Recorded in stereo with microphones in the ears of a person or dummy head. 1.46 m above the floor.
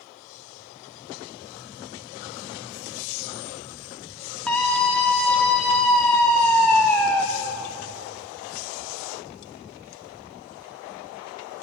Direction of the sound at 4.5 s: 5° left (ahead or behind).